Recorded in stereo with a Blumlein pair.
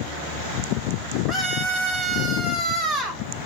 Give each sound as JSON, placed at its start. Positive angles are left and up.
{"t": 1.3, "sound": "a scream", "azimuth_deg": 5, "distance_m": 4.5}